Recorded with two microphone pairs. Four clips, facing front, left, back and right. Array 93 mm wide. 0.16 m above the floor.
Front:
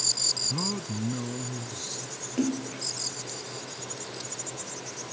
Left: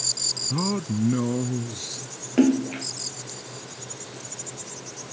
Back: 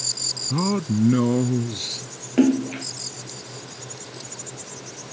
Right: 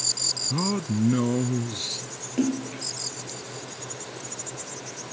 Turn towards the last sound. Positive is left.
turn(degrees=140)